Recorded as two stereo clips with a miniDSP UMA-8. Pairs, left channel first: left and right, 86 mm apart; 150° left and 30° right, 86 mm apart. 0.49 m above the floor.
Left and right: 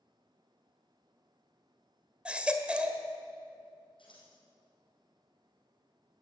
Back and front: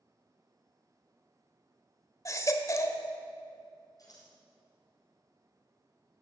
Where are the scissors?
105° left, 5 m.